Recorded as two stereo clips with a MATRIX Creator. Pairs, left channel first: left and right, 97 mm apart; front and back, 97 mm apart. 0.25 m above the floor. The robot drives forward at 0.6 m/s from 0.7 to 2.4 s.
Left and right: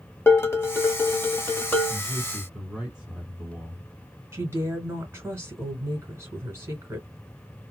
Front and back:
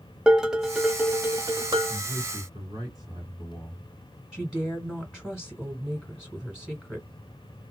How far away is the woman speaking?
About 1.6 m.